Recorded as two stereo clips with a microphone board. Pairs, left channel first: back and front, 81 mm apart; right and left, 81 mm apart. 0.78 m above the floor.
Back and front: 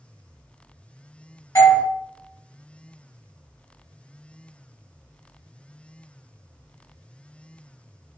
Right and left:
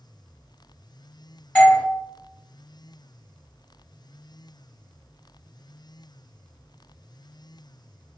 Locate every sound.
1.6 s a doorbell: 155° right, 1.3 m